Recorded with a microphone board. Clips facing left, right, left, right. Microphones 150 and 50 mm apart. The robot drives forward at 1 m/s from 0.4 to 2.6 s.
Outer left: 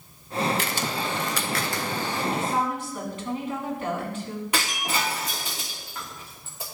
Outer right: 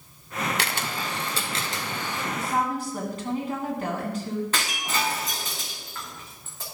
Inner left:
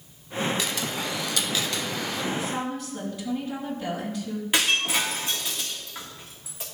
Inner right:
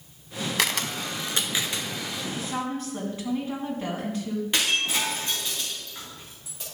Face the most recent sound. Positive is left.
turn(degrees=15)  # may be behind; listen again after turning